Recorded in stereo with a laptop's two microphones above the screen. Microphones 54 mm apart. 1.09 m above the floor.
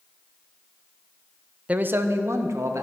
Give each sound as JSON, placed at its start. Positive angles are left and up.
{"t": 1.7, "sound": "a man speaking", "side_deg": -25, "distance_m": 0.6}